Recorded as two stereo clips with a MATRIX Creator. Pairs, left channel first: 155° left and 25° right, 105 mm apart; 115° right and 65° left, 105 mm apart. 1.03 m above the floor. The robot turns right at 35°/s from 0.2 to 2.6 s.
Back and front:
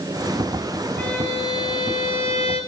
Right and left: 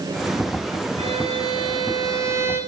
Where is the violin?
85° left, 8.5 m; by 2.6 s 140° left, 8.5 m.